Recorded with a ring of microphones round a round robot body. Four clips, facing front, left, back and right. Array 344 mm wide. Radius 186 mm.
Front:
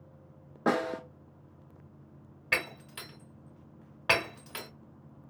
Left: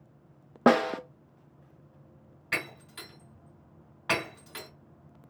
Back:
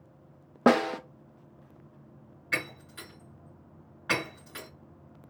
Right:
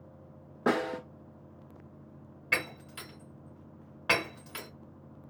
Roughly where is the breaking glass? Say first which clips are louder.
Right 1 dB, front 1 dB; ahead.